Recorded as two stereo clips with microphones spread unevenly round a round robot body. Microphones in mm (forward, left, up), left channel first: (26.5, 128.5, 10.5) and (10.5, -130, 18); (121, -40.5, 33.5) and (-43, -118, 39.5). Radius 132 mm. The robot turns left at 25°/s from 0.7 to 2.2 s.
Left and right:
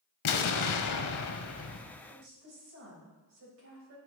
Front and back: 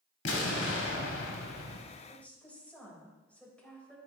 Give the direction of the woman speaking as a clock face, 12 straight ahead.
2 o'clock.